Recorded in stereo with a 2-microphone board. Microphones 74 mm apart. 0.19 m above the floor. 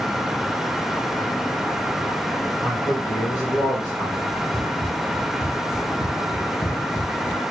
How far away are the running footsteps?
About 2.5 m.